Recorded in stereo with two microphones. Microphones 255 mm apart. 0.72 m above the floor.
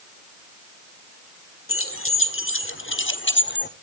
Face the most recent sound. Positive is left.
turn(degrees=45)  # may be behind; listen again after turning